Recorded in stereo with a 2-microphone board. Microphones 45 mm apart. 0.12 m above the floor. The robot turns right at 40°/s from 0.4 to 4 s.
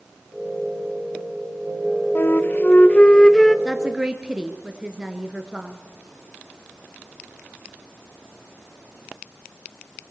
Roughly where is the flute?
Behind left.